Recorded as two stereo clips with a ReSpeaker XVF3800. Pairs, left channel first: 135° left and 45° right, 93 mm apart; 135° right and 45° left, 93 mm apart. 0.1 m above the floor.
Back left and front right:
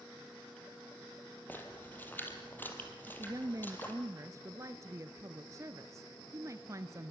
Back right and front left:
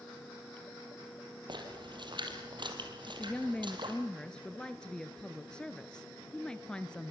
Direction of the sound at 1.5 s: 70° left.